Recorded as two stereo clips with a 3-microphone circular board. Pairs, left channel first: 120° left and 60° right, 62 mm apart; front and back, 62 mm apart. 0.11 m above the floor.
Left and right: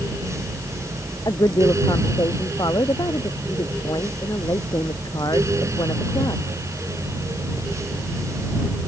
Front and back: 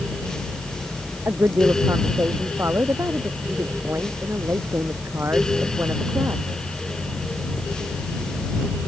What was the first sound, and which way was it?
A woman speaking, 130° left.